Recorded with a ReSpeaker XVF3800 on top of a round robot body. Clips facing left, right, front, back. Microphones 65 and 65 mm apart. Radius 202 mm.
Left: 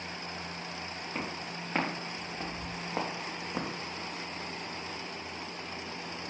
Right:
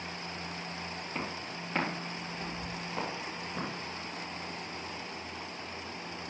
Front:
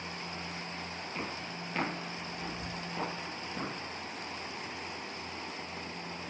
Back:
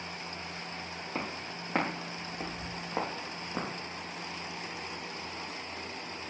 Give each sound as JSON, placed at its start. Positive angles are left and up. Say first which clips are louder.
{"t": 1.1, "sound": "footsteps", "louder": "left 1 dB, back 3 dB", "azimuth_deg": 180, "distance_m": 4.0}